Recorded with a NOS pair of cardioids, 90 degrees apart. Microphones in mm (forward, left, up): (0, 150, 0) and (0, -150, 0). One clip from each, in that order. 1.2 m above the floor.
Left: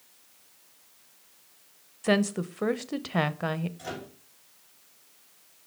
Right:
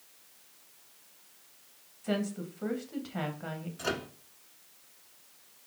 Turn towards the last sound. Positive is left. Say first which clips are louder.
# right 4 dB
turn(degrees=-50)